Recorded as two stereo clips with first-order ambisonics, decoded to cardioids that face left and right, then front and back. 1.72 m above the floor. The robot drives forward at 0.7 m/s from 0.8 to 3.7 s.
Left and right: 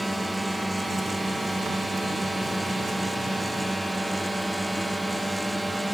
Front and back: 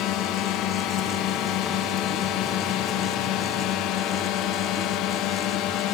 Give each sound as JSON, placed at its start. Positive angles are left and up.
{"t": 0.0, "sound": "a drone", "azimuth_deg": -5}